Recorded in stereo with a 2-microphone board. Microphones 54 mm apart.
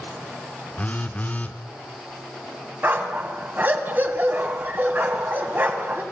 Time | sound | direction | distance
0.8 | a phone buzzing | 30° left (ahead or behind) | 1.1 m
2.8 | a dog barking | 40° right (ahead or behind) | 2 m